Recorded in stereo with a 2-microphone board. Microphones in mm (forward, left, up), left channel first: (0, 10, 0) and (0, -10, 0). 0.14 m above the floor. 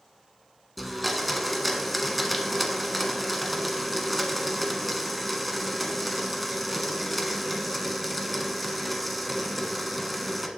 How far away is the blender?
About 1.2 m.